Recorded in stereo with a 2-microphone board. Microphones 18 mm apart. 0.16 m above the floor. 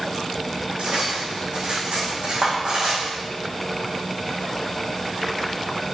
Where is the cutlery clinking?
85° right, 5.5 m.